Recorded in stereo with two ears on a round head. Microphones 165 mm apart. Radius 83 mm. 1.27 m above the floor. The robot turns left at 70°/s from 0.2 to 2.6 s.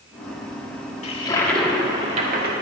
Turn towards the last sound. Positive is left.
turn(degrees=-70)